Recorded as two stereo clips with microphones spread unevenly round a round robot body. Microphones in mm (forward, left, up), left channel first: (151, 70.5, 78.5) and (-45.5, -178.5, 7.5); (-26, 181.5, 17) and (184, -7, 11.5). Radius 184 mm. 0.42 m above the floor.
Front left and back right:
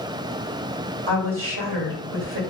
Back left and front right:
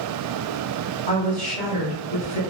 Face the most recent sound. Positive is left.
turn(degrees=-160)